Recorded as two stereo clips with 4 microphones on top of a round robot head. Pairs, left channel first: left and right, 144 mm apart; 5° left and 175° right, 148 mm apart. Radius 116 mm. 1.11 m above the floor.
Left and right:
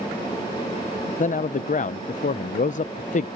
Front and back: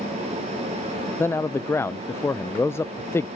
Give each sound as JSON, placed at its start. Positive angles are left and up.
{"t": 1.2, "sound": "a man speaking", "azimuth_deg": 75}